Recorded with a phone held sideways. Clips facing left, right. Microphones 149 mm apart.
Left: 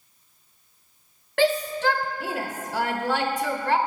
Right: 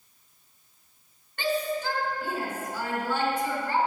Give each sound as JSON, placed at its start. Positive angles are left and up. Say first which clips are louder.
{"t": 1.4, "sound": "a shout", "louder": "left 6 dB", "side_deg": 85, "distance_m": 1.1}